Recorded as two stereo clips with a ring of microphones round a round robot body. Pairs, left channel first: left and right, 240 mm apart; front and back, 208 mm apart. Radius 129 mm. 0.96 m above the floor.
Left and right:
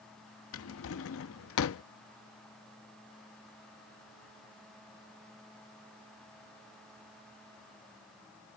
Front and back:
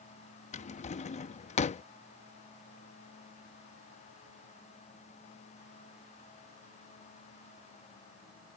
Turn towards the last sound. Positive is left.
turn(degrees=55)